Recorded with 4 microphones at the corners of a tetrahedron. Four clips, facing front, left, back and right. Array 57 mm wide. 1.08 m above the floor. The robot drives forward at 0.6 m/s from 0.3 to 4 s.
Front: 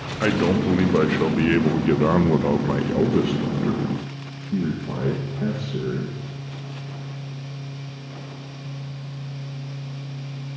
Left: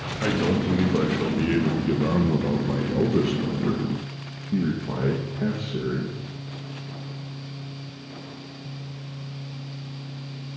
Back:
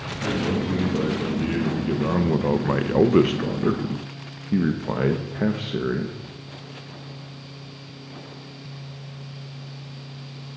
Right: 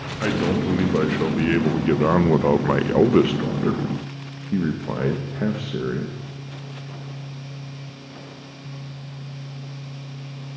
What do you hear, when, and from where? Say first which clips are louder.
0.2 s a man speaking: right 2 dB, front 5 dB; 20° right, 1.5 m; by 6.2 s 150° right, 1.0 m